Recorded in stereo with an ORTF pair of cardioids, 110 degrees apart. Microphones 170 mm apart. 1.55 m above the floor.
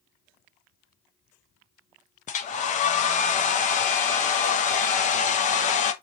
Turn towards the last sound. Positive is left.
turn(degrees=45)